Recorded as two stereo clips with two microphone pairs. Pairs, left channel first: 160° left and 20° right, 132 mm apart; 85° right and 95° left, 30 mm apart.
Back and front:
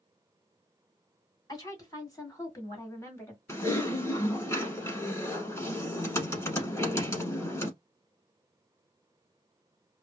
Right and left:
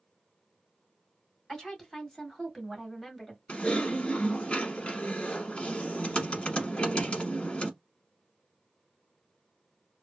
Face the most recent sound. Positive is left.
turn(degrees=-135)